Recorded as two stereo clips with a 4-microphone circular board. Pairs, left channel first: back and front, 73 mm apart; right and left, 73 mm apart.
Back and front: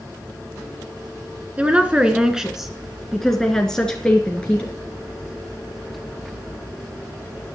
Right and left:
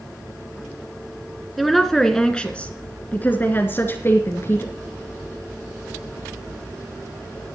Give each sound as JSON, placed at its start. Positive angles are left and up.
{"t": 1.6, "sound": "a woman speaking", "azimuth_deg": 0, "distance_m": 1.6}